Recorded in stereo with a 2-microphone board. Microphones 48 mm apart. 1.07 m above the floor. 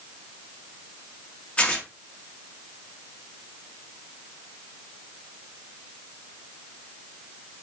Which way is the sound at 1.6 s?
20° left (ahead or behind).